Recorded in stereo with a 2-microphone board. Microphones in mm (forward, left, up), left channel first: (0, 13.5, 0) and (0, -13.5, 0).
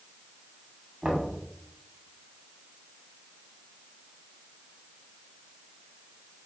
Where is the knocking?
25° right (ahead or behind), 2 m.